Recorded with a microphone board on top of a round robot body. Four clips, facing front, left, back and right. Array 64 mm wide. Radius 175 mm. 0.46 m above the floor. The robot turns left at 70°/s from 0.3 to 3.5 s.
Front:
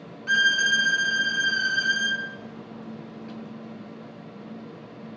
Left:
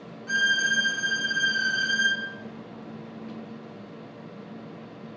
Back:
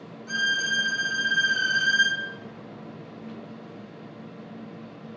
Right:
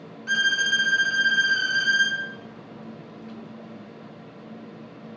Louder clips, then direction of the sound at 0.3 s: Right 1 dB, front 5 dB; 25° right.